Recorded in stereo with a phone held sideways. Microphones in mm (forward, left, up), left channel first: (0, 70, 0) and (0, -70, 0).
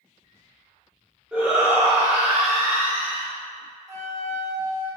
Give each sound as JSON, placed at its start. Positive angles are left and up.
{"t": 1.3, "sound": "a shout", "side_deg": -5, "distance_m": 0.9}
{"t": 3.9, "sound": "a flute", "side_deg": -20, "distance_m": 0.7}